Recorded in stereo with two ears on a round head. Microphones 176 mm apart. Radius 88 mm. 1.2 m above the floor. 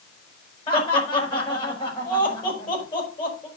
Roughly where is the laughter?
Left.